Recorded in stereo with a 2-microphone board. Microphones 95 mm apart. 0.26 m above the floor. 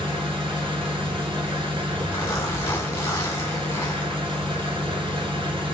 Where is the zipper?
35° left (ahead or behind), 1.2 m.